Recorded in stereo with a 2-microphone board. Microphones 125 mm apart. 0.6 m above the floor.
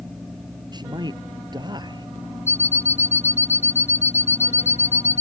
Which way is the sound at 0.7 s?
35° right (ahead or behind).